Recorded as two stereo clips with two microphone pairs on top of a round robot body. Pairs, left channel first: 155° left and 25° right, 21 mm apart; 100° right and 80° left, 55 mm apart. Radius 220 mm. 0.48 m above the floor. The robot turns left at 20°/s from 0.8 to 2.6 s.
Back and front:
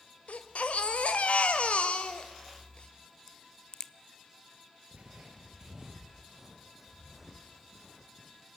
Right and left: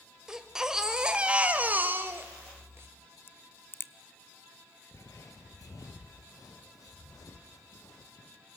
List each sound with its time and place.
0.3 s a baby crying: 160° left, 1.2 m; by 2.9 s 125° left, 1.2 m
3.3 s a crack: 145° right, 0.6 m
4.9 s footsteps: 55° right, 0.7 m; by 8.3 s 105° right, 3 m